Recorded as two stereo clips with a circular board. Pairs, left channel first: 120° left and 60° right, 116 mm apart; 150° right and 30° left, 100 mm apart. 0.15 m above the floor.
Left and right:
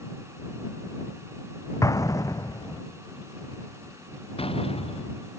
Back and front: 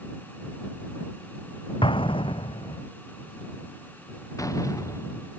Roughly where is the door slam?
Behind left.